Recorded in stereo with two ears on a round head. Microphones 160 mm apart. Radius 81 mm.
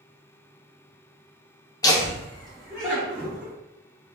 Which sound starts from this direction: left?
Laughter, at 1.8 s.